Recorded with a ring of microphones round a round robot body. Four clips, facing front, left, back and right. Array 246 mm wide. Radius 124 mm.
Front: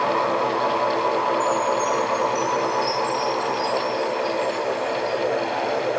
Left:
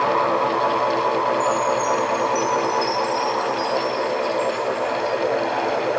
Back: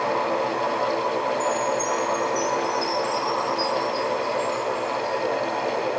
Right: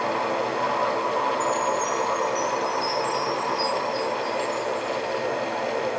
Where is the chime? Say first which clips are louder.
Left 4 dB, front 3 dB; 130° left, 2.5 m.